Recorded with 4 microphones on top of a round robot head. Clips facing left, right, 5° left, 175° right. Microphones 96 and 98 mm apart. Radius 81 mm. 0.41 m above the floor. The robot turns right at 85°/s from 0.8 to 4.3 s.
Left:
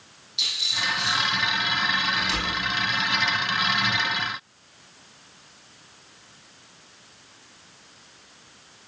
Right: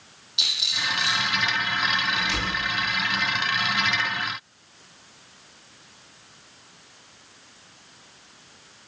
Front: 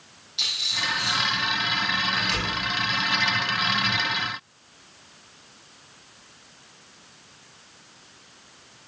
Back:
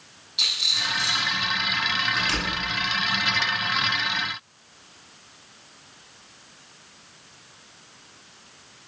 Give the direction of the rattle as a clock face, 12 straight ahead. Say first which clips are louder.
Left 1 dB, front 1 dB; 2 o'clock.